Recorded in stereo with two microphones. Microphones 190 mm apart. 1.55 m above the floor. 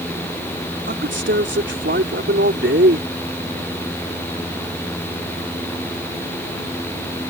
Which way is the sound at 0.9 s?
80° right.